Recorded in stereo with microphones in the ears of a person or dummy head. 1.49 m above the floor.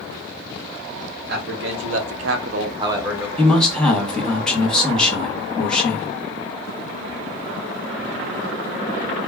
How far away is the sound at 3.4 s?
About 1.0 m.